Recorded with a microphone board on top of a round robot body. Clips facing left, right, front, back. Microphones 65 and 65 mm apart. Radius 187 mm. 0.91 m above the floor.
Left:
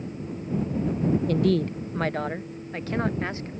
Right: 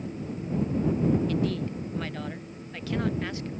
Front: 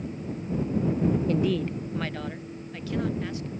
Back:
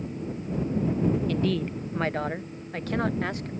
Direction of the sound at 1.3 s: 50° left.